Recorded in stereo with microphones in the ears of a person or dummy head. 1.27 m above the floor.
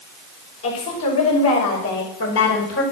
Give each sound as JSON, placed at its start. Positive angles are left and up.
{"t": 0.6, "sound": "a woman speaking", "side_deg": 85, "distance_m": 6.0}